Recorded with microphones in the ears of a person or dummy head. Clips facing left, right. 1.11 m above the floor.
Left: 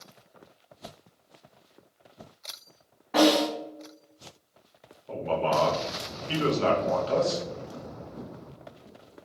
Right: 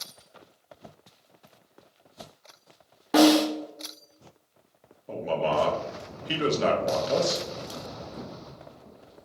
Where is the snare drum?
45° right (ahead or behind), 0.7 m.